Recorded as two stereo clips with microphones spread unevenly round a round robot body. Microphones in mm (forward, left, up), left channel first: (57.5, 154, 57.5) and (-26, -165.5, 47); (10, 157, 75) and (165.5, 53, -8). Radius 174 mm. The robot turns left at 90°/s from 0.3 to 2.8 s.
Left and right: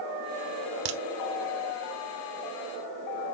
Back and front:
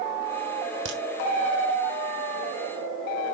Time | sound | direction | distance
0.8 | a crack | 85° right | 1.3 m